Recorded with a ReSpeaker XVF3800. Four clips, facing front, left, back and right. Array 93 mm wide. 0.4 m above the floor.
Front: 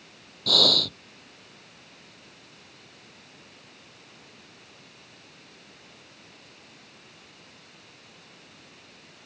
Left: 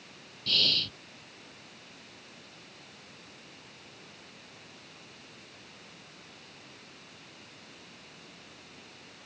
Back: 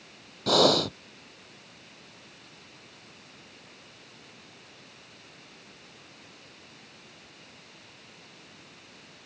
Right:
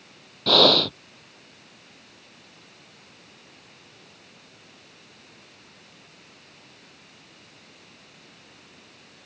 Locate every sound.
0.5 s breathing: 110° right